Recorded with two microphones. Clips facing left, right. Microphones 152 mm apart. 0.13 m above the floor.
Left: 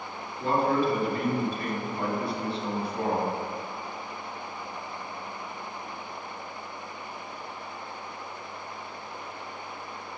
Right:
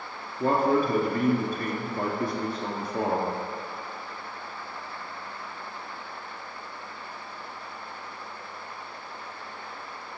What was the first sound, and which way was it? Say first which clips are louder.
A man speaking: right 2 dB; 50° right (ahead or behind).